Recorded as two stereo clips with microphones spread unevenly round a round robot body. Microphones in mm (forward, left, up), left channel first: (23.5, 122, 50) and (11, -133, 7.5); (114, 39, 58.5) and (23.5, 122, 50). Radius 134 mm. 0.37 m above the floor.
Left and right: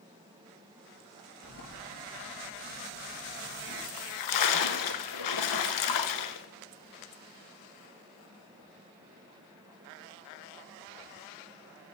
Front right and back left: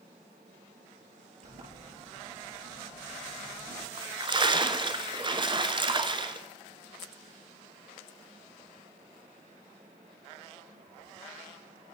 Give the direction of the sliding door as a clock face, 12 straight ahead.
7 o'clock.